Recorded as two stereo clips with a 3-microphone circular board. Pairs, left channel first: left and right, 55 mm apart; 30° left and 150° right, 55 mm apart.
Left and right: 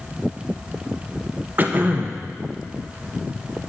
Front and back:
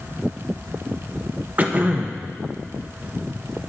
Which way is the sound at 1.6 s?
115° right.